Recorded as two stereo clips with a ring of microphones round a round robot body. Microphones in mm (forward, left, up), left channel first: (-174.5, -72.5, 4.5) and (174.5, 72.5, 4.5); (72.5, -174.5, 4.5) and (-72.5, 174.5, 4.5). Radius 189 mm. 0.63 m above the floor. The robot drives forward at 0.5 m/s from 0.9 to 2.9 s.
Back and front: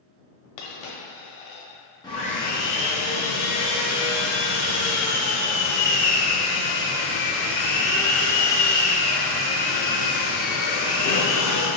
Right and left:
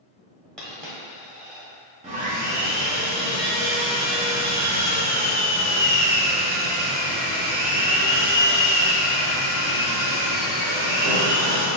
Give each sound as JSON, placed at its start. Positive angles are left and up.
{"t": 0.6, "sound": "a dropped coin", "azimuth_deg": -155, "distance_m": 1.1}
{"t": 2.0, "sound": "sawing", "azimuth_deg": 145, "distance_m": 0.7}